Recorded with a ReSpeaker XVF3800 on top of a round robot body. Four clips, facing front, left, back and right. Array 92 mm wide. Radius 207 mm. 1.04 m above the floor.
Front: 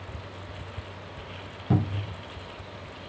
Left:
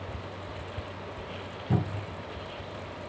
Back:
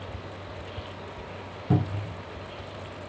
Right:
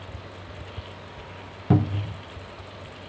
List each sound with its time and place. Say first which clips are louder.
1.7 s a cupboard door: right 8 dB, even; 90° right, 0.8 m